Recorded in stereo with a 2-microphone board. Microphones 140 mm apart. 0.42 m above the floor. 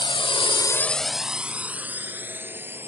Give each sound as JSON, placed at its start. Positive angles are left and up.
{"t": 0.0, "sound": "a drone", "side_deg": 35}